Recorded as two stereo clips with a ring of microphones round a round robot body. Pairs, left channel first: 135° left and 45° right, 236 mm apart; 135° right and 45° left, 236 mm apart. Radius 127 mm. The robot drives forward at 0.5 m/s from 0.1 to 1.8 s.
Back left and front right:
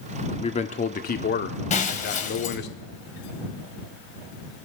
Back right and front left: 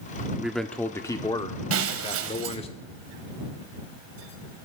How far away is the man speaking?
About 0.8 m.